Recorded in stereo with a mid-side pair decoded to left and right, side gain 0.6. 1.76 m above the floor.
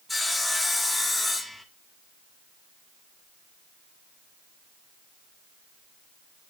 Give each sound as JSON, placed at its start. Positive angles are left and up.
{"t": 0.1, "sound": "sawing", "azimuth_deg": 10, "distance_m": 3.0}